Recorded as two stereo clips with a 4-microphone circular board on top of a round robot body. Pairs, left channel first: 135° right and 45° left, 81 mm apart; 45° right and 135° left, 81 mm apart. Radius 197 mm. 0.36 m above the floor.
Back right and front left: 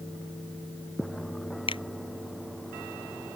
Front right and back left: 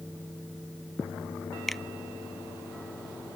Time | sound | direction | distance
1.7 | a finger snap | 135° right | ?